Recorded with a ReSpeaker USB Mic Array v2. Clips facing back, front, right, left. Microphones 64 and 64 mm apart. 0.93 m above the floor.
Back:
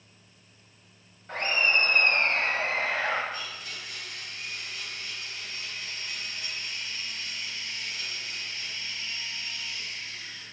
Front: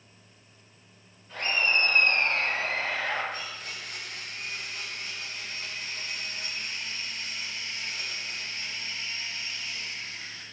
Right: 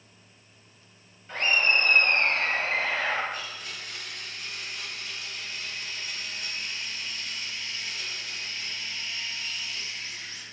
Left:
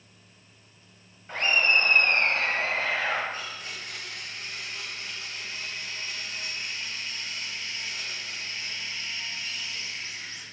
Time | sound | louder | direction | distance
1.3 | laughter | back 1 dB, left 1 dB | 160° left | 6.5 m
3.3 | a blender | even, even | 35° left | 4.5 m